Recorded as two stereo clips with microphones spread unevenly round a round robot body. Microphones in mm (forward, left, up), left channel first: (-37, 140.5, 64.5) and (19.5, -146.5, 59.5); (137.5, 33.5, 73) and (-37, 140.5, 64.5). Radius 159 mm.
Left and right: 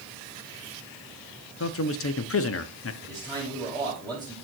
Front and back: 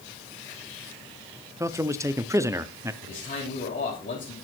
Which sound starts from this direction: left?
A man speaking, at 1.6 s.